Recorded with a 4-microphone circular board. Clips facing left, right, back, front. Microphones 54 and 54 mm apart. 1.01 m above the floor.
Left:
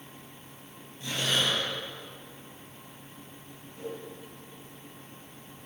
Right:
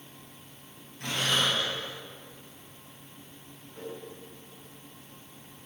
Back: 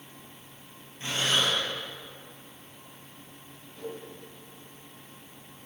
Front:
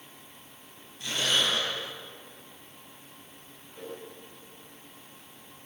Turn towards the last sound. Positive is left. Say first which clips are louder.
# left 2 dB, back 2 dB
turn(degrees=-70)